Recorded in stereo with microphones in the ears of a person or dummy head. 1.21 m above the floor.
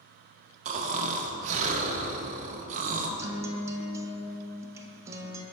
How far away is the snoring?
About 0.6 m.